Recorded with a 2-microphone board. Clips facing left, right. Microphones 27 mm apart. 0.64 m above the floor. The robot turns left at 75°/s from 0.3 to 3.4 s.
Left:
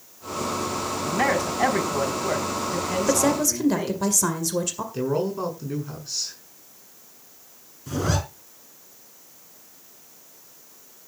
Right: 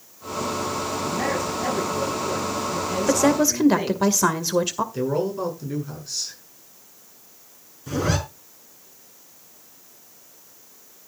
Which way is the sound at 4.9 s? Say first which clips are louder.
Left 2 dB; 5° left (ahead or behind).